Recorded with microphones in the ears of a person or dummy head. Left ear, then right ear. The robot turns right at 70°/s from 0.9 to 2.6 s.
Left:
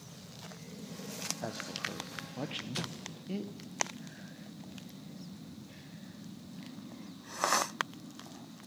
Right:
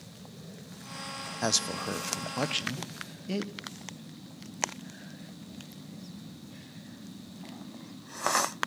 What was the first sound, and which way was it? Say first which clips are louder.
A man speaking: right 14 dB; 105° right.